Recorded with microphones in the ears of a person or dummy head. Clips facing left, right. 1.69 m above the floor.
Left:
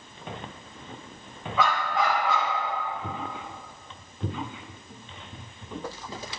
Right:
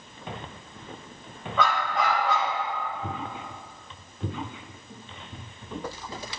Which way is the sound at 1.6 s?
5° left (ahead or behind).